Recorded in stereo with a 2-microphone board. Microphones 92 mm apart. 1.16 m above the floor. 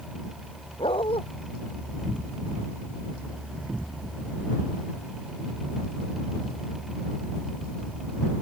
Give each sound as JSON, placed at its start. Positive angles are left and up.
{"t": 0.8, "sound": "a dog barking", "side_deg": 80}